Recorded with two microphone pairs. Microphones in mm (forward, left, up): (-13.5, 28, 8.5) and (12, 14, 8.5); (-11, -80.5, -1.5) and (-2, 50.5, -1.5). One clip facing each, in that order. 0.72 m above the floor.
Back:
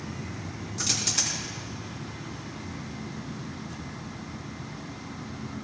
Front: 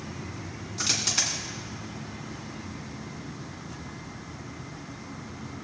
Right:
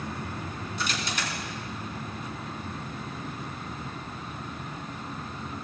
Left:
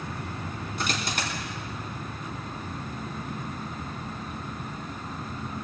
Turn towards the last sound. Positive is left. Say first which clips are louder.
# front 2 dB, left 2 dB
turn(degrees=45)